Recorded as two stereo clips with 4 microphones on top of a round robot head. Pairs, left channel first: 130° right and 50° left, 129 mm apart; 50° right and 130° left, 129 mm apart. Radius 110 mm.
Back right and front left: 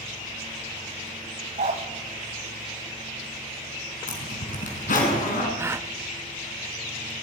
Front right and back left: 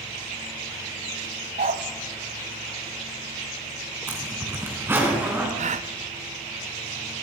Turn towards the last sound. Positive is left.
turn(degrees=115)